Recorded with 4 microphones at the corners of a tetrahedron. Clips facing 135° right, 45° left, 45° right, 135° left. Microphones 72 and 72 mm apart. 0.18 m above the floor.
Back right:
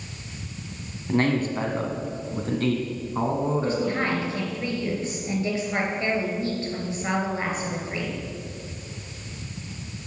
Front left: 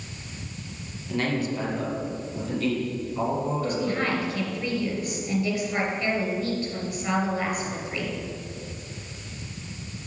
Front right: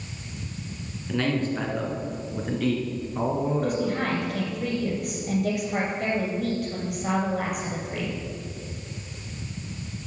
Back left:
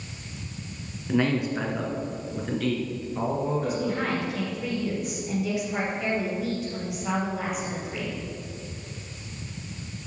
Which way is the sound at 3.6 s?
75° right.